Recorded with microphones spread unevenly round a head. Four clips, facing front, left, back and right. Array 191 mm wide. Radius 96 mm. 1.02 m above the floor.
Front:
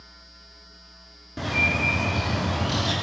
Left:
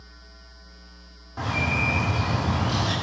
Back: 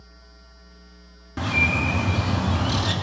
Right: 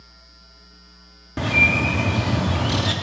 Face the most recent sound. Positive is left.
turn(degrees=-100)